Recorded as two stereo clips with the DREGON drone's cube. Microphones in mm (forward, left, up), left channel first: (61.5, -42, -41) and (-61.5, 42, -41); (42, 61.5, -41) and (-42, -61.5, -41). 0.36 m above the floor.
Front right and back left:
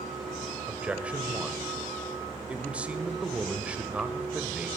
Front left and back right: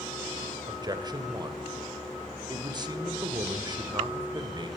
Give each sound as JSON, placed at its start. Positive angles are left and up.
{"t": 0.7, "sound": "a man speaking", "azimuth_deg": -140, "distance_m": 0.9}